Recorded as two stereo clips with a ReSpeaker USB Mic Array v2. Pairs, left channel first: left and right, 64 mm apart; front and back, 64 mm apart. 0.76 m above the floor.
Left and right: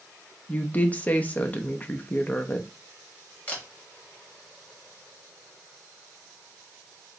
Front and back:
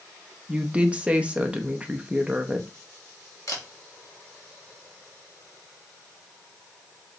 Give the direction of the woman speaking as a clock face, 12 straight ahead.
8 o'clock.